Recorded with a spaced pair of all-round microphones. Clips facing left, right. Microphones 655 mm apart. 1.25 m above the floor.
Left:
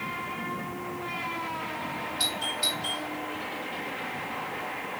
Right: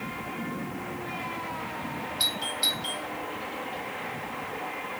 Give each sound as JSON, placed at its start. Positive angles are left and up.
{"t": 2.2, "sound": "a doorbell", "side_deg": 70, "distance_m": 6.0}